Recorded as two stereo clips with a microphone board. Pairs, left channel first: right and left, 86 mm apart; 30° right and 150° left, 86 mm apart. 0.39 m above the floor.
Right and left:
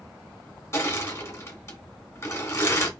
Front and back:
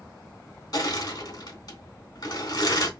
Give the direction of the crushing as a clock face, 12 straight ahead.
1 o'clock.